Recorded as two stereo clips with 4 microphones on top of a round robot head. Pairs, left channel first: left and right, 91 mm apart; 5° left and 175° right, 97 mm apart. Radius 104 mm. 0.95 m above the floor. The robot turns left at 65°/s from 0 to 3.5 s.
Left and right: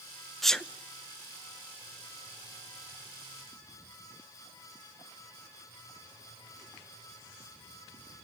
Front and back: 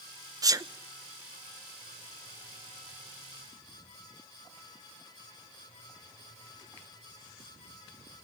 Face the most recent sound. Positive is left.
turn(degrees=-25)